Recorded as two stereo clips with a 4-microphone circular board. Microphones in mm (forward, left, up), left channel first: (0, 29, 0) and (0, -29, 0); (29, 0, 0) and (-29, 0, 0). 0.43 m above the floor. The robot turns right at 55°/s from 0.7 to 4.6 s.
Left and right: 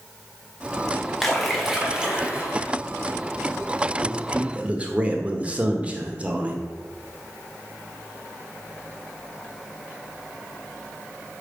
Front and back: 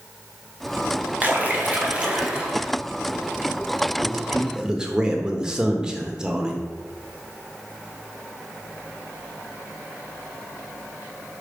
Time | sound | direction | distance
1.2 | a splash | 170° left | 1.4 m
4.0 | a man speaking | 150° right | 1.0 m